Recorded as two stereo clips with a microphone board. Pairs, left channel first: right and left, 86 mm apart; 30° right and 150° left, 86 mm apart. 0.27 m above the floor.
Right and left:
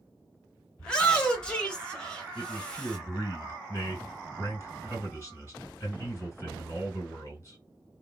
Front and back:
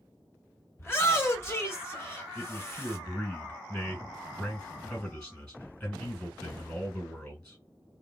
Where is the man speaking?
85° right, 1.7 m.